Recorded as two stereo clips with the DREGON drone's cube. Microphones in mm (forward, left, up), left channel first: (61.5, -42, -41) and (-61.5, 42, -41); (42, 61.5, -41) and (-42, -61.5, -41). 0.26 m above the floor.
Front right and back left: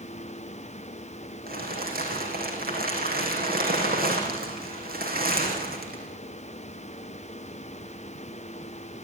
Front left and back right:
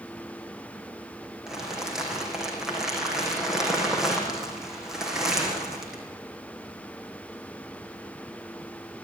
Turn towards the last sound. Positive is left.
turn(degrees=150)